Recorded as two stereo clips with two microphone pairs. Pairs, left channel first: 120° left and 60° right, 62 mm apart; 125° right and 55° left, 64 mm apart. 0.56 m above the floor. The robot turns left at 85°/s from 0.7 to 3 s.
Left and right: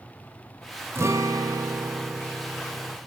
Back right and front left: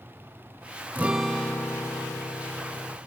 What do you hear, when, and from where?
0.9 s a guitar: 10° right, 0.7 m; by 3.0 s 175° left, 0.7 m